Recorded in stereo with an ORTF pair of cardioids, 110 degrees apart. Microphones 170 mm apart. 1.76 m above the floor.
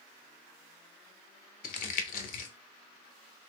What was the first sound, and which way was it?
Crumpling, 60° left.